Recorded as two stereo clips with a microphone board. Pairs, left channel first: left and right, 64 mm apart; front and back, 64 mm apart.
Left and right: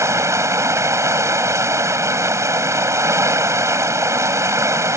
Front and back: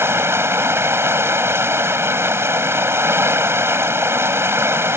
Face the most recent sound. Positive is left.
turn(degrees=-130)